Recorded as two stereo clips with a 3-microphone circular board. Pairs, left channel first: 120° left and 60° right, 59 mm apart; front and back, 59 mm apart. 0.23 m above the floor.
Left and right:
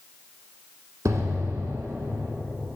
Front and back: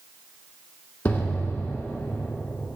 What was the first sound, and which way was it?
An explosion, 55° right.